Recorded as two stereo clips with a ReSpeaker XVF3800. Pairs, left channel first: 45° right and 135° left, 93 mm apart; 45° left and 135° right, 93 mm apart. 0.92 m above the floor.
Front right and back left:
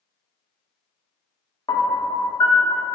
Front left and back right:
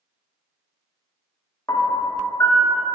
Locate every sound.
1.7 s a piano: 10° right, 0.5 m